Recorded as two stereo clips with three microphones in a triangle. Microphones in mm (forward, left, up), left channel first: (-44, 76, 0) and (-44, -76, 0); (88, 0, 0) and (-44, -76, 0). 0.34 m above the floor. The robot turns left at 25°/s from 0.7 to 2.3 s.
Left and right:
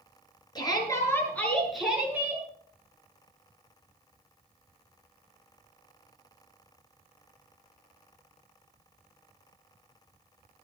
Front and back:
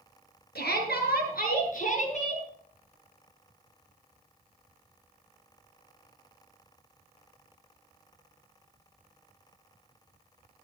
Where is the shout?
25° left, 6.5 m; by 2.4 s 15° right, 6.5 m.